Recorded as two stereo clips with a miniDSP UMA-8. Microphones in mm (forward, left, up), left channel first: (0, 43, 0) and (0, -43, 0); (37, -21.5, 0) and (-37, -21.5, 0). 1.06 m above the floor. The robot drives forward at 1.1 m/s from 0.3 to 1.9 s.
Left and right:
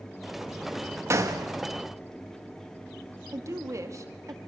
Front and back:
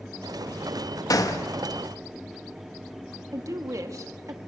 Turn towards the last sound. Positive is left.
turn(degrees=-140)